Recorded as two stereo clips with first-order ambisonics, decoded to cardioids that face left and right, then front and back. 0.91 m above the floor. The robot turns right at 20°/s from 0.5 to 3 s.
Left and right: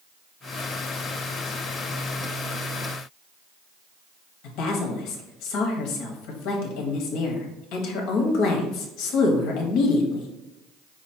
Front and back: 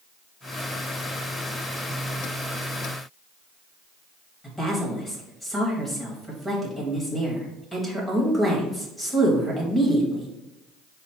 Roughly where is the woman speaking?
Left.